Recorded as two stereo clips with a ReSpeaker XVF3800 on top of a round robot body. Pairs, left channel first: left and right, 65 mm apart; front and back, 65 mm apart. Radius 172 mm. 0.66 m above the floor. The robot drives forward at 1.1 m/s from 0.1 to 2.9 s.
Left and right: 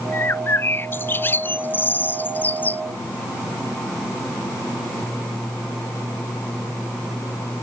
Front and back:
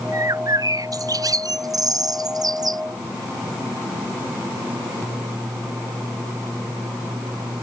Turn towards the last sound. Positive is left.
turn(degrees=155)